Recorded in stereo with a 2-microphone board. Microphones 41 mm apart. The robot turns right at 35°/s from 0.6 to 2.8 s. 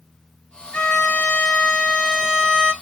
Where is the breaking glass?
I don't hear breaking glass.